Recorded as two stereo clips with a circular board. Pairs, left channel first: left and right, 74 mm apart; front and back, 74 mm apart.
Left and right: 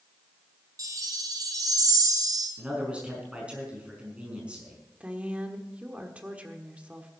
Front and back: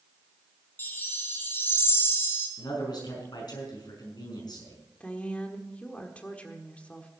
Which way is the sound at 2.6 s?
15° right.